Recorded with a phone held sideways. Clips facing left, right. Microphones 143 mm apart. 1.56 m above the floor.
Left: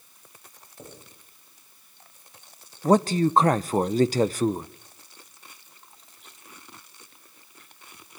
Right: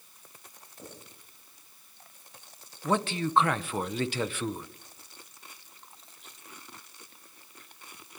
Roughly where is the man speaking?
Left.